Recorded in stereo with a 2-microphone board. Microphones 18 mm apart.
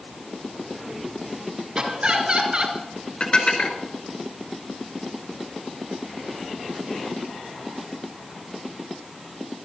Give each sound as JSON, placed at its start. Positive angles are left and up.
{"t": 1.8, "sound": "laughter", "side_deg": -45, "distance_m": 3.0}
{"t": 3.2, "sound": "dishes clattering", "side_deg": 55, "distance_m": 2.5}